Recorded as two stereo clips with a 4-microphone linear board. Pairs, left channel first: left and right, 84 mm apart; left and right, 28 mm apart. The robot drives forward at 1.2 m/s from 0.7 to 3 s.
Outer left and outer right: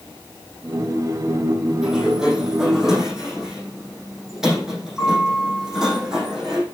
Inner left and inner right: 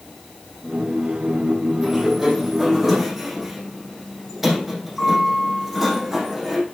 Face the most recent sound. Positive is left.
turn(degrees=-5)  # may be behind; listen again after turning